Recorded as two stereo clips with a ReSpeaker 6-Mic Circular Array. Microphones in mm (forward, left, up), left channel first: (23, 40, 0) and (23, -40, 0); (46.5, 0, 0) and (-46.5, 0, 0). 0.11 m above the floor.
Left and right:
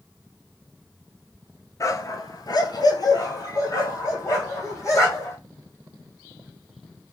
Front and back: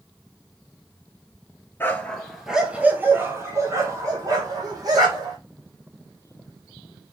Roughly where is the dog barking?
Ahead left.